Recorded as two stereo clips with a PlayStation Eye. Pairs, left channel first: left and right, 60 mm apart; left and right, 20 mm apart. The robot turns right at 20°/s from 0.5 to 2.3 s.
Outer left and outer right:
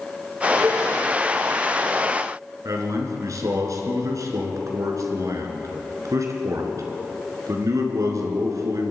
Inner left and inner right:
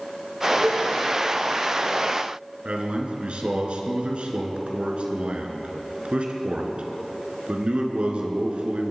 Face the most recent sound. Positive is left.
turn(degrees=-65)  # may be behind; listen again after turning